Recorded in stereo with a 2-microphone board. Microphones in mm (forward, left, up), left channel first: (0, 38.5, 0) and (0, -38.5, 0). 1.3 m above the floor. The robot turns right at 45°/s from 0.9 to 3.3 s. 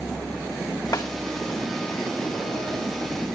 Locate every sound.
0.9 s a snare drum: 55° left (ahead or behind), 2.5 m; by 1.1 s 65° left (ahead or behind), 2.5 m